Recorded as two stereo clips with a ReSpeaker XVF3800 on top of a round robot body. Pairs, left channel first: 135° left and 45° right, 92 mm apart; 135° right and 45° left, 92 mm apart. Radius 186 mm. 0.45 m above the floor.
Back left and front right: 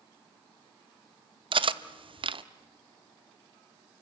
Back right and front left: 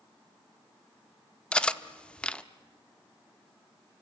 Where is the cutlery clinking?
55° right, 0.9 m.